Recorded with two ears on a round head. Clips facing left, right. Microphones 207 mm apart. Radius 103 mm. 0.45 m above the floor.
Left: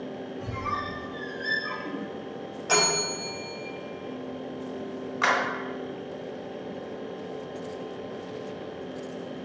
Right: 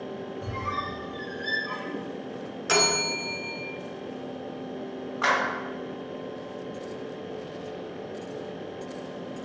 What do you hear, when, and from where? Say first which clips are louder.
0.4 s a squeak: even; 15° left (ahead or behind), 1.4 m
2.7 s a bell: right 1 dB; 25° right (ahead or behind), 0.7 m
5.2 s a clap: even; 30° left (ahead or behind), 1.6 m